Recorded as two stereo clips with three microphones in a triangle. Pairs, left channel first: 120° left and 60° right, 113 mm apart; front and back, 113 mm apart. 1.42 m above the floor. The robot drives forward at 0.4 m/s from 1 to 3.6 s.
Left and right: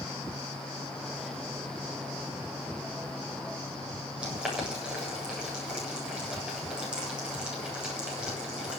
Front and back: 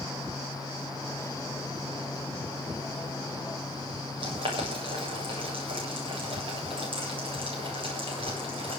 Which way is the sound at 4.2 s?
140° right.